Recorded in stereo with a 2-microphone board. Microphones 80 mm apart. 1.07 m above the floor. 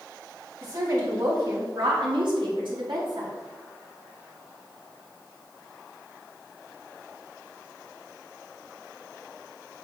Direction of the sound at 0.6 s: 50° right (ahead or behind).